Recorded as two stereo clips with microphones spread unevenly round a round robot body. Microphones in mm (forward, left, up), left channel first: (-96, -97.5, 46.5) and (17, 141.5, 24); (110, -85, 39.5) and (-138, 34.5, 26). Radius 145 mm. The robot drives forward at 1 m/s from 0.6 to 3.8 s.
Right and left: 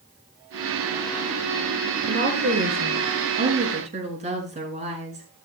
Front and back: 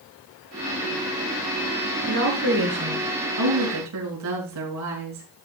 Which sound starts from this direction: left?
A woman speaking, at 2.0 s.